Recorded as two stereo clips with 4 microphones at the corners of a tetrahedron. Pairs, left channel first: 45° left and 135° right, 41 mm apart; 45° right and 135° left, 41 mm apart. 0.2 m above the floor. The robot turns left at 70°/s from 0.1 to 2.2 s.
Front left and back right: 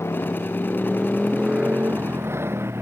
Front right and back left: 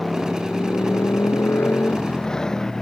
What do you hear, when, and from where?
0.0 s a motorcycle: 45° left; by 2.8 s 125° right